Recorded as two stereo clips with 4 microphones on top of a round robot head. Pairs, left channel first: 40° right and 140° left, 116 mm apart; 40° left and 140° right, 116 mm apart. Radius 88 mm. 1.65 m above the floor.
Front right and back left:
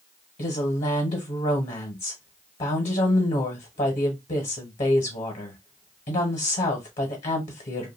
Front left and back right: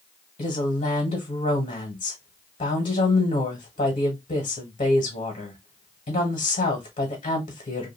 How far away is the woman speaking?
About 1.1 m.